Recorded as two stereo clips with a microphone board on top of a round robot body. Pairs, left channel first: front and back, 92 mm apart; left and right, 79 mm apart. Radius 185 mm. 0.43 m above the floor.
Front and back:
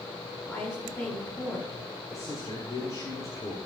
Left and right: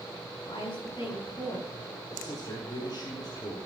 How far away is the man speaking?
About 2 m.